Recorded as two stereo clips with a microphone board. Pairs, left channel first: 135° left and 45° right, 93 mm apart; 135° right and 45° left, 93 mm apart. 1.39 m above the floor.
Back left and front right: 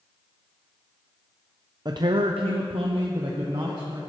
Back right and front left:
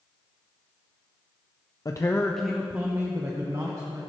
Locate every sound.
1.9 s a man speaking: 90° right, 0.7 m; by 4.0 s 5° right, 1.8 m